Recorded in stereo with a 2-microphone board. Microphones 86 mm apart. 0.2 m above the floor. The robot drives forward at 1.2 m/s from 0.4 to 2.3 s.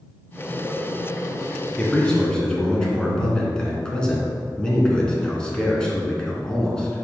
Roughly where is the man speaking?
Centre.